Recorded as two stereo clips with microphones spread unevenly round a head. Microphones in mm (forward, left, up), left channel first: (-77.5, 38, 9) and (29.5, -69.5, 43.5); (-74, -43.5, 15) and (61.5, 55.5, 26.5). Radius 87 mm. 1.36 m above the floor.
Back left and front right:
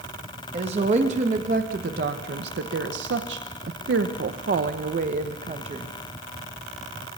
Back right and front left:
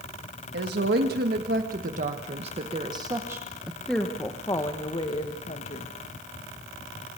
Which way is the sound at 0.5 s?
10° left.